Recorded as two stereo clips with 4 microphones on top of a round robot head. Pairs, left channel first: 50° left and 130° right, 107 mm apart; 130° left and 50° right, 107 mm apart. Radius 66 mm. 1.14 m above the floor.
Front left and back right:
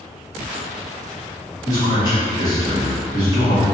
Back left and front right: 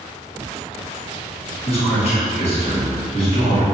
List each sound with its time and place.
1.6 s a man speaking: 105° left, 1.9 m